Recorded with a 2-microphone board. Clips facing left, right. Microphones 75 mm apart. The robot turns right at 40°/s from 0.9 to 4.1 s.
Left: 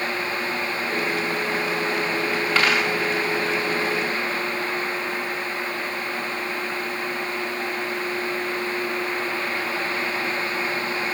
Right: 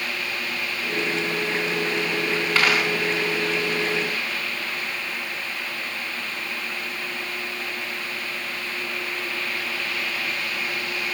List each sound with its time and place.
2.5 s a dropped coin: centre (ahead or behind), 3.5 m; by 2.9 s 10° right (ahead or behind), 3.5 m